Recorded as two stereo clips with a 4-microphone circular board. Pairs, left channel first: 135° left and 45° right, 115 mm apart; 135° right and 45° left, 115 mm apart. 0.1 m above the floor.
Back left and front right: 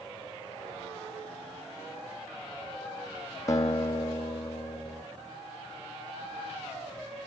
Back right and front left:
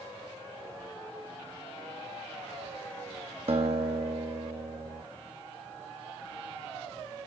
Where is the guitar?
75° left, 0.8 m.